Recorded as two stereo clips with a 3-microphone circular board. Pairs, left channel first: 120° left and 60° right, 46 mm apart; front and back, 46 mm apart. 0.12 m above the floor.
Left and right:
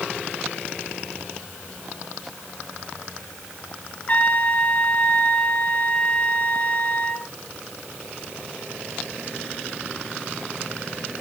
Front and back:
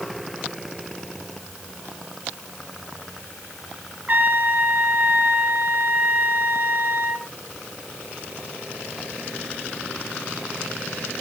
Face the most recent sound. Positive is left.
turn(degrees=150)